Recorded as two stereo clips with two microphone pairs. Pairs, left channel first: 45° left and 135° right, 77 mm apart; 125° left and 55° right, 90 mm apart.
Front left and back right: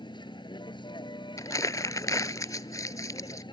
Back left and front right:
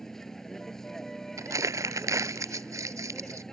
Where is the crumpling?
Straight ahead.